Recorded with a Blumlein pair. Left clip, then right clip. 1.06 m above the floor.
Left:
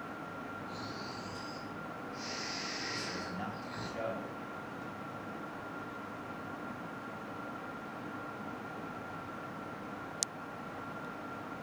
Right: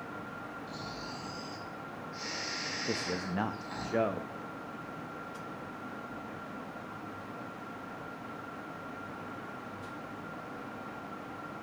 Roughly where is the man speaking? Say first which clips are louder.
Right 4 dB; ahead right.